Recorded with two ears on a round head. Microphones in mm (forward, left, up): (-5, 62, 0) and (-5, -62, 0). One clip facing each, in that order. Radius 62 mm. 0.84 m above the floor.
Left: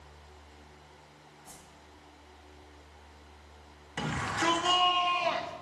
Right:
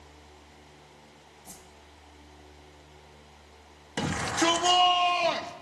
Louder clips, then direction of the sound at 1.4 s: Right 3 dB; 20° right (ahead or behind).